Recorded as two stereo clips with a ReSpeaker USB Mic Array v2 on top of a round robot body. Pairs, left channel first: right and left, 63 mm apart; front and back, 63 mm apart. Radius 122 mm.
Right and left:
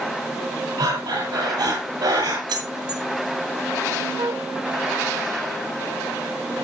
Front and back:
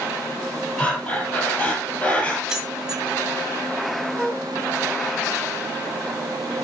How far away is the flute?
About 0.7 m.